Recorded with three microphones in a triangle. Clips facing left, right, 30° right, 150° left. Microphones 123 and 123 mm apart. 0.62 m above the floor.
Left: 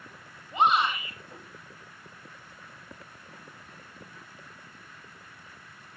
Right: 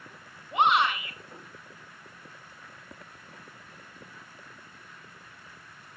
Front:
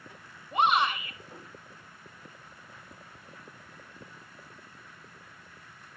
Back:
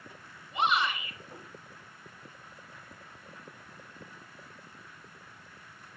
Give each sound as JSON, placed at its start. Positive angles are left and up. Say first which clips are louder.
{"t": 0.5, "sound": "a shout", "louder": "right 1 dB, front 4 dB", "azimuth_deg": -70, "distance_m": 6.0}